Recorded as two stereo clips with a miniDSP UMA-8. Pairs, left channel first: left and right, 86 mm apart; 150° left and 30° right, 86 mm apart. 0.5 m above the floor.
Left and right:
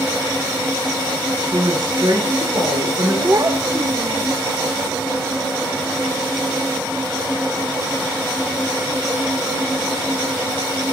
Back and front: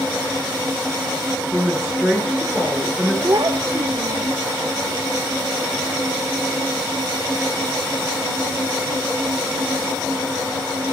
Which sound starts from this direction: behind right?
A woman speaking, at 1.5 s.